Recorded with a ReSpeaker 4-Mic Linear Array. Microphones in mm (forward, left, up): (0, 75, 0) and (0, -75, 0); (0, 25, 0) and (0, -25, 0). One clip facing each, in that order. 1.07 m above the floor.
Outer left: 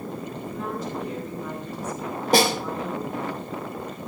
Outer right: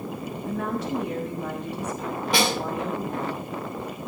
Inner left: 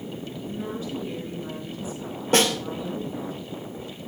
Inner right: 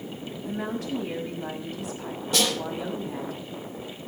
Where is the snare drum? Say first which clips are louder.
Outer left 5 dB, inner left 5 dB; 45° left (ahead or behind), 3 m.